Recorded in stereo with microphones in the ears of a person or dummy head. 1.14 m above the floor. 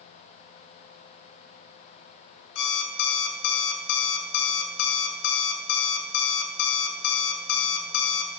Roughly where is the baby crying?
I don't hear a baby crying.